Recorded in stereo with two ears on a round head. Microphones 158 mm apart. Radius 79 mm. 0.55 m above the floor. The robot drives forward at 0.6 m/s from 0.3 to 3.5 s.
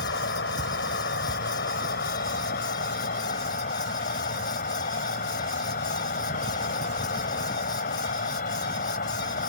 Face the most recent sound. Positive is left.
turn(degrees=50)  # may be behind; listen again after turning